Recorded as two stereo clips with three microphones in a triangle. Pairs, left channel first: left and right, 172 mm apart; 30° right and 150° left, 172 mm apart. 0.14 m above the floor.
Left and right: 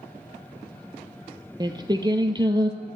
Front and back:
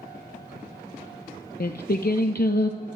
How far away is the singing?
About 0.6 m.